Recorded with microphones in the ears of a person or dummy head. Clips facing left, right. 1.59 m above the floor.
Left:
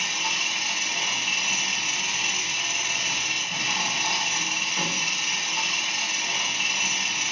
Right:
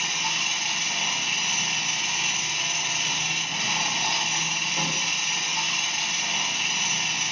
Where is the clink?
No clink in this recording.